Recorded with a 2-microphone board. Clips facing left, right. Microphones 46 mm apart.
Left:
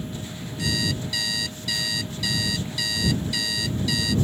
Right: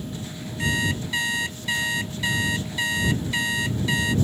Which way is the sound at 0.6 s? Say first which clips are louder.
Right 3 dB; 30° right (ahead or behind).